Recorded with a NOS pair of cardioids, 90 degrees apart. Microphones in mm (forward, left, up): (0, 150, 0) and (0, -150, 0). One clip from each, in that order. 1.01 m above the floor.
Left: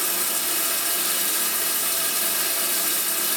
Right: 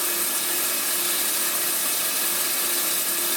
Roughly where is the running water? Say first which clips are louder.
Left 1 dB; ahead.